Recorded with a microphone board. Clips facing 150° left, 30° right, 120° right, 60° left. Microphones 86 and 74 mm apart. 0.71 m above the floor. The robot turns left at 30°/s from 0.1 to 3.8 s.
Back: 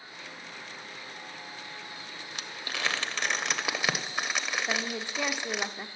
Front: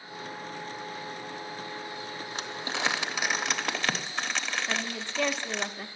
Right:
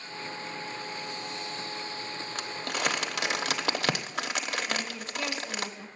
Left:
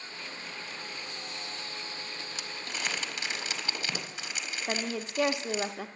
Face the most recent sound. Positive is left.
turn(degrees=75)